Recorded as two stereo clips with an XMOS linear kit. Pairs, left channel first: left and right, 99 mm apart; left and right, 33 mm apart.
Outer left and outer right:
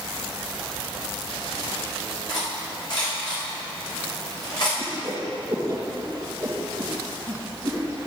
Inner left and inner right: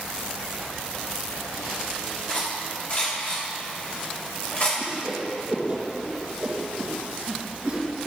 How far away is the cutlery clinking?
About 3 m.